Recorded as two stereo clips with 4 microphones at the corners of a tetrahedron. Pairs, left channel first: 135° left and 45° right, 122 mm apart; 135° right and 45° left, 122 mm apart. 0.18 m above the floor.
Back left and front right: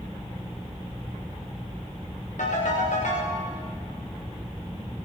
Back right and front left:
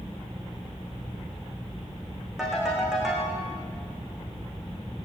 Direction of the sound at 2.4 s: 130° left.